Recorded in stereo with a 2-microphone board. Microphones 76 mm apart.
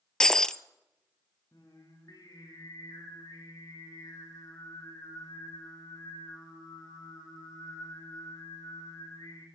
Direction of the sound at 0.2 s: 10° left (ahead or behind).